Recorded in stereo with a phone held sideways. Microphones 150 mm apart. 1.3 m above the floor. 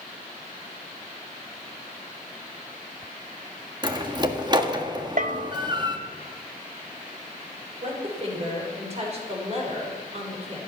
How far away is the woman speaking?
About 6 m.